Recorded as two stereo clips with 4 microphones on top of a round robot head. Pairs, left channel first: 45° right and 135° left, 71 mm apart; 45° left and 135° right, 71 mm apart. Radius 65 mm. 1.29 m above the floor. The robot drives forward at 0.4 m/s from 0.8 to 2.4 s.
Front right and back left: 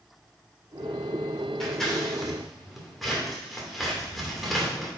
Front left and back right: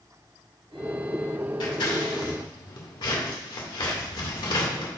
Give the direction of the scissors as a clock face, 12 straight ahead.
11 o'clock.